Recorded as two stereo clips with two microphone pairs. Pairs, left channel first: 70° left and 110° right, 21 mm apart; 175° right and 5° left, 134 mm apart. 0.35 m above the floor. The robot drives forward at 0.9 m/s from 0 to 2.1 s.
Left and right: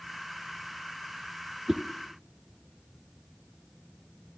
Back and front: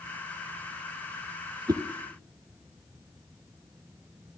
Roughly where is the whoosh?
Ahead right.